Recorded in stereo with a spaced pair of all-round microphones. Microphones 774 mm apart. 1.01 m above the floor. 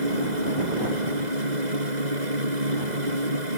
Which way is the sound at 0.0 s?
65° right (ahead or behind).